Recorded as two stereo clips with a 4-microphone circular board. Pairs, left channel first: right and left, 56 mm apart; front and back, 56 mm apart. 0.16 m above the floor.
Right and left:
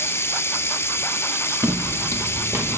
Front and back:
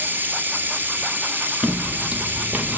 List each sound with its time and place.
0.0 s running water: 130° right, 1.8 m
1.6 s footsteps: 110° left, 1.5 m; by 2.8 s 115° left, 2.5 m